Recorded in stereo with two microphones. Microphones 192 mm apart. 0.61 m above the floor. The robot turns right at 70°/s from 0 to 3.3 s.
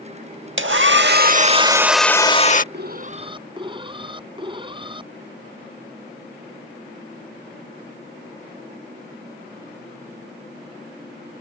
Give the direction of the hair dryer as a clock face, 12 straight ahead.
3 o'clock.